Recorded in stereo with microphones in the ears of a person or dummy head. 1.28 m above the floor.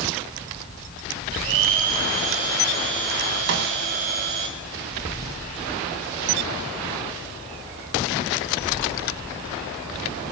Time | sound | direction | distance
1.3 | a blender | 45° right (ahead or behind) | 1.4 m
3.5 | a snare drum | 60° right (ahead or behind) | 1.1 m